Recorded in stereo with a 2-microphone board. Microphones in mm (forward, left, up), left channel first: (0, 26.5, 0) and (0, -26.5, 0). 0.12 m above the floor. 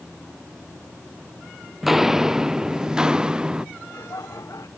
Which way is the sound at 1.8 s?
5° right (ahead or behind).